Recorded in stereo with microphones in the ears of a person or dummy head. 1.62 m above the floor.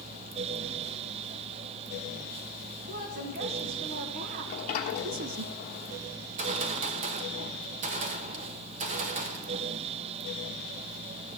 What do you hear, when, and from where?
2.9 s a woman speaking: 45° right (ahead or behind), 2.5 m; by 5.5 s 40° right (ahead or behind), 0.6 m
4.5 s a sliding door: 40° left (ahead or behind), 1.1 m
6.2 s a gunshot: 45° right (ahead or behind), 1.0 m